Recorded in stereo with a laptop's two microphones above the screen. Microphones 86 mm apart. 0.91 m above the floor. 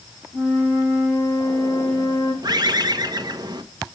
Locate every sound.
0.3 s a flute: 20° right (ahead or behind), 5.5 m
2.4 s a bird: 55° right (ahead or behind), 1.2 m